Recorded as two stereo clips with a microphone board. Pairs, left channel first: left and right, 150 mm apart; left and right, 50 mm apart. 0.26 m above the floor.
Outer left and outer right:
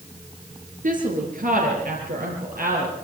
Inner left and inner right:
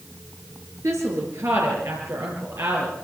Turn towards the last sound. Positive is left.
turn(degrees=-75)  # may be behind; listen again after turning